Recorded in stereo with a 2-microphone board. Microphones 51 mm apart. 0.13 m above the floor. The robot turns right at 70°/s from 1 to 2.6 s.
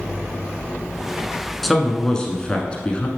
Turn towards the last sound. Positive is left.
turn(degrees=20)  # may be behind; listen again after turning